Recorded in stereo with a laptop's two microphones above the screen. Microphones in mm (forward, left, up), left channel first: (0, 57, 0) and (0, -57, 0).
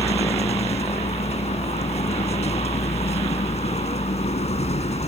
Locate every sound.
0.0 s a vehicle: 70° left (ahead or behind)